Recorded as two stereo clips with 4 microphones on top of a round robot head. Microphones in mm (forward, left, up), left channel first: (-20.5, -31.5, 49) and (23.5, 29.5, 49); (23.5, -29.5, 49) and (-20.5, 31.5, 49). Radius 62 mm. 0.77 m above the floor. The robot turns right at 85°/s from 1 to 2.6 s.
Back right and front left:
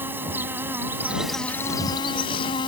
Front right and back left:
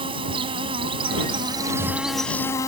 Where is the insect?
120° left; by 2.7 s 105° right.